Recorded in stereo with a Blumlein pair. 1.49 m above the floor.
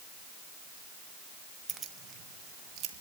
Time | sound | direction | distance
1.7 | keys jangling | 20° right | 1.2 m